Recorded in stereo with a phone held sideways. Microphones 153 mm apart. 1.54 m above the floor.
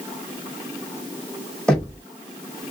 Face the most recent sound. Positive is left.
turn(degrees=5)  # may be behind; listen again after turning